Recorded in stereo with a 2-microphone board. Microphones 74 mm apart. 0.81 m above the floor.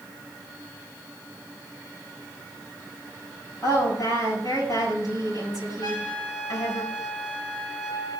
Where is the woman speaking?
60° left (ahead or behind), 7.5 m.